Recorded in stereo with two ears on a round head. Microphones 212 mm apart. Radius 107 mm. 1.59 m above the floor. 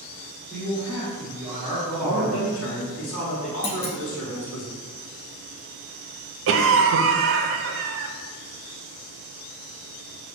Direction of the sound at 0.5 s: Centre (ahead or behind).